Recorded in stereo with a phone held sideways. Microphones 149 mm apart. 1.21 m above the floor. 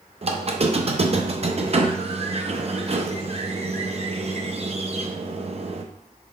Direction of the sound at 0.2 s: 45° right (ahead or behind).